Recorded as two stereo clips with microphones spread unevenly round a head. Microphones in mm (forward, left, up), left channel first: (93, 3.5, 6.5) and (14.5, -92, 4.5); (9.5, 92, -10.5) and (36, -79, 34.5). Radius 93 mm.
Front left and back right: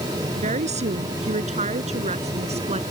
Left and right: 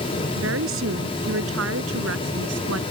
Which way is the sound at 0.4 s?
105° right.